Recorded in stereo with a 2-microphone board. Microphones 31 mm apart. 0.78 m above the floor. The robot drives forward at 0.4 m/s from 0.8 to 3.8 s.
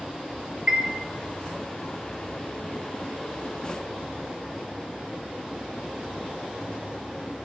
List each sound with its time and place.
0.7 s a chime: 25° right (ahead or behind), 1.0 m